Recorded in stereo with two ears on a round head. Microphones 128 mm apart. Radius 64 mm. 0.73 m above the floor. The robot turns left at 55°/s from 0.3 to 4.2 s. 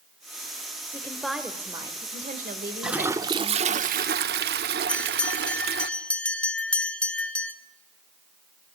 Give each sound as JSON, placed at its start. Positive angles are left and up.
{"t": 0.9, "sound": "a woman speaking", "azimuth_deg": 20, "distance_m": 2.5}
{"t": 2.8, "sound": "a toilet flushing", "azimuth_deg": -5, "distance_m": 0.9}
{"t": 4.9, "sound": "a bell", "side_deg": 10, "distance_m": 1.0}